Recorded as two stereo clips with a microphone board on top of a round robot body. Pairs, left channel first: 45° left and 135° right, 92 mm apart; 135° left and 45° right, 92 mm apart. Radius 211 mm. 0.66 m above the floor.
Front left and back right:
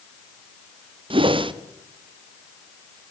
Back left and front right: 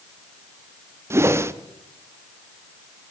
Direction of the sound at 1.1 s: 110° right.